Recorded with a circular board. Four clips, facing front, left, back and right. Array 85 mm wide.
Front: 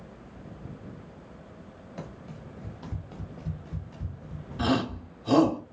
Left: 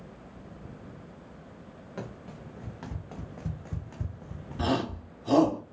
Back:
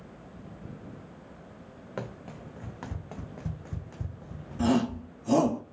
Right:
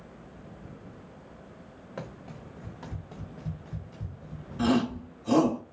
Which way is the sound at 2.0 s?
175° right.